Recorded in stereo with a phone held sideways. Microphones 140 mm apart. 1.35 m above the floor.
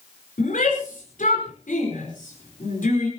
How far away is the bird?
No bird in this recording.